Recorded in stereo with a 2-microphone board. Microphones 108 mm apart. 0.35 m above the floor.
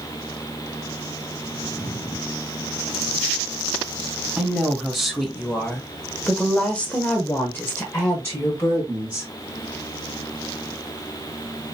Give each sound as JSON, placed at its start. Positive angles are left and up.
{"t": 4.4, "sound": "a woman speaking", "side_deg": -5, "distance_m": 1.9}